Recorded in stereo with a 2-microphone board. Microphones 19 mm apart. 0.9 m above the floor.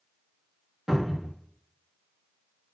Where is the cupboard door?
30° right (ahead or behind), 0.8 m.